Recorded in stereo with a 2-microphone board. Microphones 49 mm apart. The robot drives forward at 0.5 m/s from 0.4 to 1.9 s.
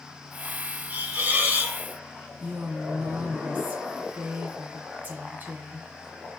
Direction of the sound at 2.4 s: 40° right (ahead or behind).